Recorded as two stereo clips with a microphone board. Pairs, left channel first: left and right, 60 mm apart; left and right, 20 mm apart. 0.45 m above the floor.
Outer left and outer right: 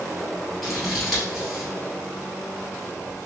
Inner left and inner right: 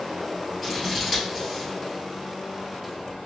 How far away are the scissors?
About 1.6 m.